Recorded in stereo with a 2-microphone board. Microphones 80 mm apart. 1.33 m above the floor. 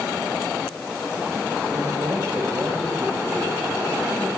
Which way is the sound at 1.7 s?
40° right (ahead or behind).